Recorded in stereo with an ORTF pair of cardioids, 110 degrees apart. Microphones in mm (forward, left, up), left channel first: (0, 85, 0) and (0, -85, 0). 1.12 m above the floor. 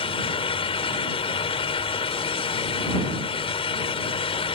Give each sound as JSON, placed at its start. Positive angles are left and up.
{"t": 0.0, "sound": "a fan", "azimuth_deg": 35}